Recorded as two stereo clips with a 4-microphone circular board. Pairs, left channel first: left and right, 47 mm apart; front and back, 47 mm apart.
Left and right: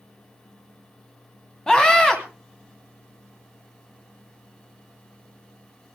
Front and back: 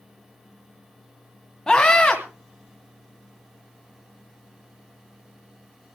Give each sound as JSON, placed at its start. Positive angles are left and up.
{"t": 1.7, "sound": "a scream", "azimuth_deg": 50, "distance_m": 1.6}